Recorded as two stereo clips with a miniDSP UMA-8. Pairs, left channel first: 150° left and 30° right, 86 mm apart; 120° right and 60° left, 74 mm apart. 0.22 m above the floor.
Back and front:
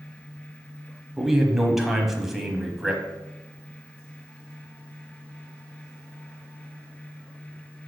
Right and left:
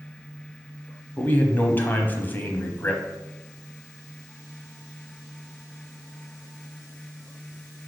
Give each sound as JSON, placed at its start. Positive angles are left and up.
{"t": 1.2, "sound": "a man speaking", "azimuth_deg": -115, "distance_m": 1.0}